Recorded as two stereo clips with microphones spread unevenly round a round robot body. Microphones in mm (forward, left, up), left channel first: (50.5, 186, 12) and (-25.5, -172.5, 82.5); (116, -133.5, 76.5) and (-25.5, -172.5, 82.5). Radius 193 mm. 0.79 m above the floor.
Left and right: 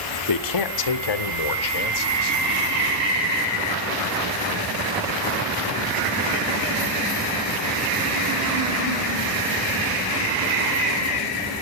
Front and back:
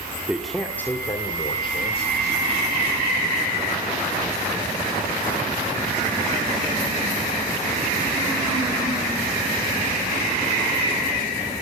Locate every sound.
0.3 s a man speaking: 110° left, 2 m; by 2.4 s 75° left, 3.5 m